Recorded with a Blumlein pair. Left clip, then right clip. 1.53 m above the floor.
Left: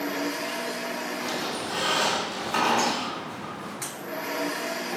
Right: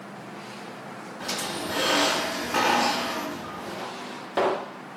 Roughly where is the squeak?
Ahead.